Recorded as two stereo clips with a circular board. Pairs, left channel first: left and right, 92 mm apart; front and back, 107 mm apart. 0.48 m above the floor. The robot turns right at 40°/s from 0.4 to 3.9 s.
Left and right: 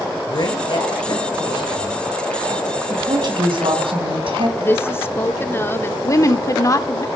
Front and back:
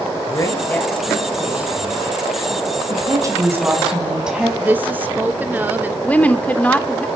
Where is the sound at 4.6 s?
125° left, 0.8 m.